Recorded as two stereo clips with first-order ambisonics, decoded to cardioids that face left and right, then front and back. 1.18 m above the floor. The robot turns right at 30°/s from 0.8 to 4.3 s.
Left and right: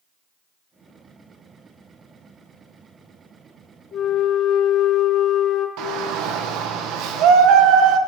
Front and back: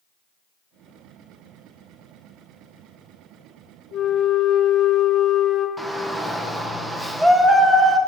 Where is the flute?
40° left, 1.1 m; by 5.7 s 50° left, 1.1 m.